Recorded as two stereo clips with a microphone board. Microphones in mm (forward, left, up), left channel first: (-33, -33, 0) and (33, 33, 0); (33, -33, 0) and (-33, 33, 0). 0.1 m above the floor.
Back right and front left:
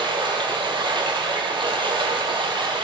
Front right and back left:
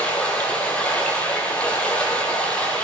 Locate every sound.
0.0 s running water: 30° left, 1.6 m